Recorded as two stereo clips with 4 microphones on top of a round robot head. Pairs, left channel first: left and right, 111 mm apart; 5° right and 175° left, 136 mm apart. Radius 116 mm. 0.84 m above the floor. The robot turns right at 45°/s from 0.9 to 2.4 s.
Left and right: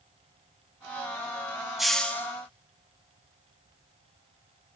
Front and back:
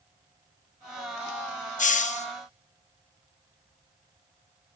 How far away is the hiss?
About 2 m.